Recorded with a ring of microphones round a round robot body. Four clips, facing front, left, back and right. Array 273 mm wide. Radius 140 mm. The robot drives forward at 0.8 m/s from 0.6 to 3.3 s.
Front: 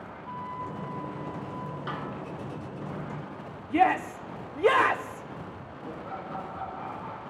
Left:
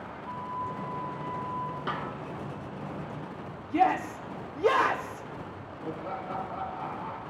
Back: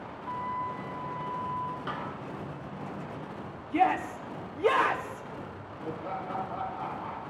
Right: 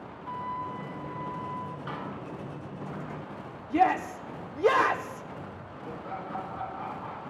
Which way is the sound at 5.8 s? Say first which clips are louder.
Left 2 dB, back 3 dB; 140° left.